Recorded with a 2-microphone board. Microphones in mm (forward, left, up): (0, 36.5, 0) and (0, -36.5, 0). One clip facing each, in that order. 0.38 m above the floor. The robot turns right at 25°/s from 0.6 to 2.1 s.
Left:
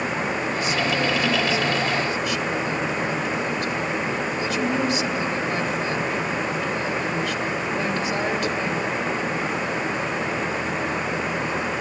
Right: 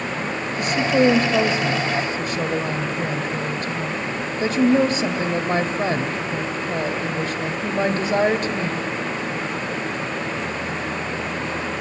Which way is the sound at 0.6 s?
95° right.